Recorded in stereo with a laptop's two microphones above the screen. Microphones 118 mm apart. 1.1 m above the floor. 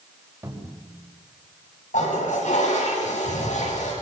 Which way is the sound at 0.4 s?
25° right (ahead or behind).